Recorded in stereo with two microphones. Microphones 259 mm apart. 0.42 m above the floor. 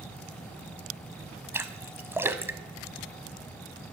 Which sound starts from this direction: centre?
A splash, at 1.5 s.